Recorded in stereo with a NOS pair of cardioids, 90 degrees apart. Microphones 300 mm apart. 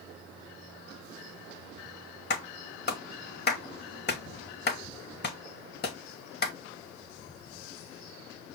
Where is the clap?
35° left, 1.2 m.